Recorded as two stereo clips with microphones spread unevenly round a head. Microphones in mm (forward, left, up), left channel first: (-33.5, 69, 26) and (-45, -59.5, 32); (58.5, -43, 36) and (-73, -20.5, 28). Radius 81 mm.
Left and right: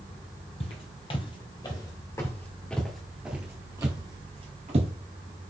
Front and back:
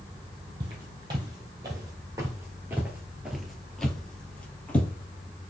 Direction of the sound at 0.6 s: 110° left.